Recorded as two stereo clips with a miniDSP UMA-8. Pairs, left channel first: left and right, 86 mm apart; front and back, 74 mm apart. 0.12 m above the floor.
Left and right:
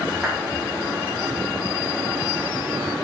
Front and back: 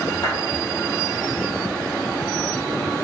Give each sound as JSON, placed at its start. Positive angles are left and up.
{"t": 0.2, "sound": "a clap", "azimuth_deg": 0, "distance_m": 4.0}